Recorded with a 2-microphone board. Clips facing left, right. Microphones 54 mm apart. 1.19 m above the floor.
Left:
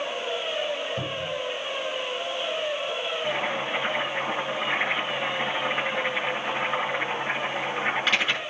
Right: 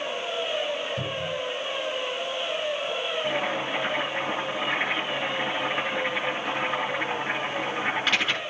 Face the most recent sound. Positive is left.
turn(degrees=0)  # may be behind; listen again after turning